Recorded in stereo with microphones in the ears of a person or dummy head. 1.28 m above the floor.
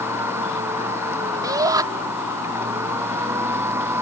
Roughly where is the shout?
Centre.